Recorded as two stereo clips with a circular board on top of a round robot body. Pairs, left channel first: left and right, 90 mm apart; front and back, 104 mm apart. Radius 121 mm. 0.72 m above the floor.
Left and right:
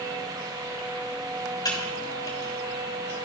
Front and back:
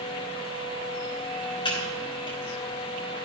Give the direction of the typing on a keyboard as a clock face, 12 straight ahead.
11 o'clock.